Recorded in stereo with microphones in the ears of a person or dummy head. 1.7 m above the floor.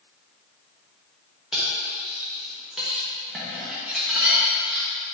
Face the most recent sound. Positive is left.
turn(degrees=-5)  # may be behind; listen again after turning